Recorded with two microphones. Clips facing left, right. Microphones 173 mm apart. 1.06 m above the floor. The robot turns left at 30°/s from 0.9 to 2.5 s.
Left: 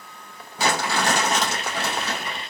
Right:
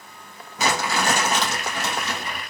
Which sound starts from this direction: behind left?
Crumpling, at 0.6 s.